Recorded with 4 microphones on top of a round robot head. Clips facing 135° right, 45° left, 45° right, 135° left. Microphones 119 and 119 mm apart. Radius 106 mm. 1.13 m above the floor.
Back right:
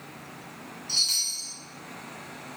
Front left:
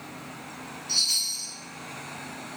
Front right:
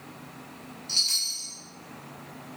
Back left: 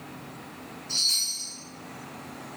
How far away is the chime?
About 1.4 m.